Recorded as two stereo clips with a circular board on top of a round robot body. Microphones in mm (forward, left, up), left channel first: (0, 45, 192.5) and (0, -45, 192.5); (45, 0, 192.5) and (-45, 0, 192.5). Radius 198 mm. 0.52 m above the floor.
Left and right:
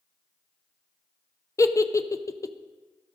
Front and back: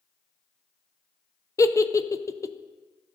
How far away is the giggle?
About 0.6 m.